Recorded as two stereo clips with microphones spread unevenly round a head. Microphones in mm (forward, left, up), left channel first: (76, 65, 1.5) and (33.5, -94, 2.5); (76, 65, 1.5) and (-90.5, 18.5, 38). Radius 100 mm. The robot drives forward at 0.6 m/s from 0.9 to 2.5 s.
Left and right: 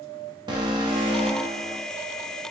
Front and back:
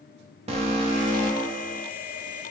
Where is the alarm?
130° right, 0.8 m; by 1.8 s 160° right, 1.0 m.